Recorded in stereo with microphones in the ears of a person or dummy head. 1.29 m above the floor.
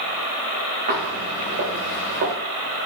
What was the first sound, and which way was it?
Footsteps, 45° right (ahead or behind).